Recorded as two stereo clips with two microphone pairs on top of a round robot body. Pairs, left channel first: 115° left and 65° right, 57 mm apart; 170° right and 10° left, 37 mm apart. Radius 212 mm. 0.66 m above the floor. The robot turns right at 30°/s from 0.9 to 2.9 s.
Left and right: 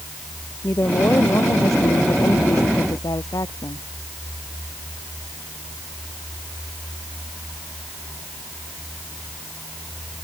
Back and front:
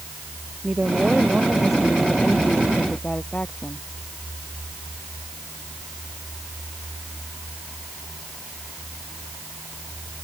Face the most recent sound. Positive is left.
turn(degrees=130)